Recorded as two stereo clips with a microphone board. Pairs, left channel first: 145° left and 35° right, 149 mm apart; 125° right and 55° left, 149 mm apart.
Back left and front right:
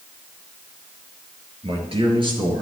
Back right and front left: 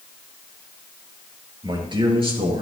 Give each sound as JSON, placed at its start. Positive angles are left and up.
{"t": 1.6, "sound": "a man speaking", "azimuth_deg": 0, "distance_m": 2.5}